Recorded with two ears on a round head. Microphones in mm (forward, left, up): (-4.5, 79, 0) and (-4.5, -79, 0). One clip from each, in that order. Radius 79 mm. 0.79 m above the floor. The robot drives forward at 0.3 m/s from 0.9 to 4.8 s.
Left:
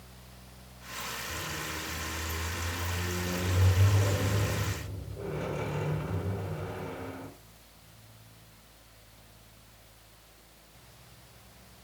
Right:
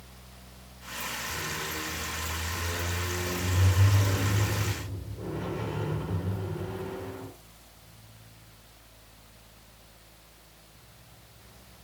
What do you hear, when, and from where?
1.3 s a squeak: 65° left (ahead or behind), 6.5 m; by 7.3 s 75° left (ahead or behind), 6 m